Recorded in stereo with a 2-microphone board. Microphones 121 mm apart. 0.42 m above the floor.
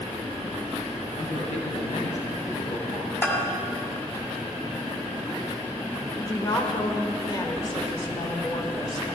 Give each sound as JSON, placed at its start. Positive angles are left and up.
{"t": 1.2, "sound": "a man speaking", "side_deg": 65, "distance_m": 2.5}
{"t": 3.2, "sound": "a bell", "side_deg": 15, "distance_m": 2.0}
{"t": 6.2, "sound": "a woman speaking", "side_deg": 35, "distance_m": 1.6}